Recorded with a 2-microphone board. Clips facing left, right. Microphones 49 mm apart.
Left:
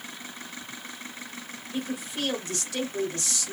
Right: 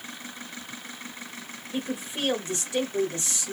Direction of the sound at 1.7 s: 25° right (ahead or behind).